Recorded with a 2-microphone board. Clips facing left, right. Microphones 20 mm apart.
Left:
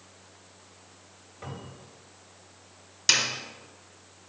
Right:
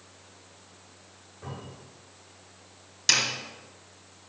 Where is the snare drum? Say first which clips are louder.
Even; 5° left (ahead or behind), 1.5 m.